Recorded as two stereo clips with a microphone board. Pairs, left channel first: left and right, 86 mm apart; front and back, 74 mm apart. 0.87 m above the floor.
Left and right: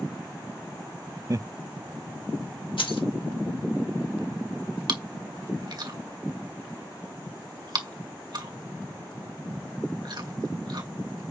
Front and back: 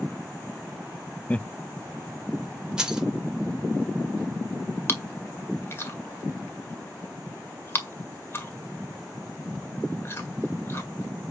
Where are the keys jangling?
100° left, 2 m.